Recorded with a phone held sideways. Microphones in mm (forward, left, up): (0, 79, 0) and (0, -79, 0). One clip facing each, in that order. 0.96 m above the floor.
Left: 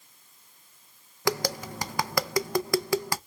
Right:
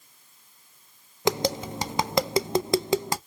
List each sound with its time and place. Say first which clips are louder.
1.2 s tapping: right 4 dB; 25° right (ahead or behind), 0.5 m